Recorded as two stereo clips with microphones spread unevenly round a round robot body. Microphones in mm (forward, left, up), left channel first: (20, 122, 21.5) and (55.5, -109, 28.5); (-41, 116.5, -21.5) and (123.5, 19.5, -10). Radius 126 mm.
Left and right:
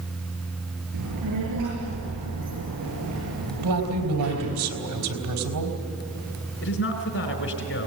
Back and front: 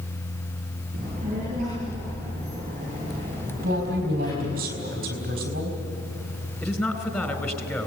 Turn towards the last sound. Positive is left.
turn(degrees=70)